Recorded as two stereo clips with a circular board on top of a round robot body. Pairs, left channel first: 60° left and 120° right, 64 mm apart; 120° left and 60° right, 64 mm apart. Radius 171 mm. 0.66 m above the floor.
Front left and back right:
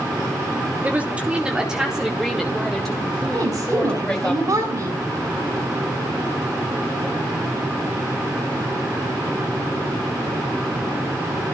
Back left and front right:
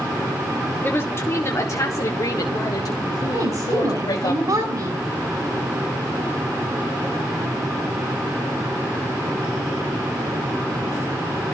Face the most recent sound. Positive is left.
turn(degrees=-85)